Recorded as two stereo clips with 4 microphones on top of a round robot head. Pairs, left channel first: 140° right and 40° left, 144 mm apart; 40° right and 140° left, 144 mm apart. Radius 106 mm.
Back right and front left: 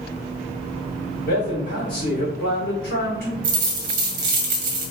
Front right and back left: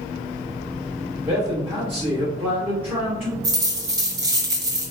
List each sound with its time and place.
1.2 s a man speaking: 145° right, 2.5 m
3.4 s a dropped coin: 75° left, 0.8 m